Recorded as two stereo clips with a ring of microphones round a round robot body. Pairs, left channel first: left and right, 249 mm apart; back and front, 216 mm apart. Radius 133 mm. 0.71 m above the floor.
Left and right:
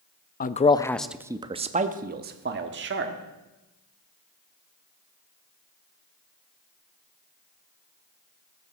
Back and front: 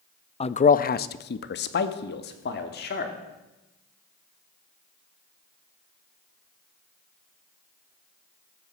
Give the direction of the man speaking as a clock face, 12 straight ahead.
8 o'clock.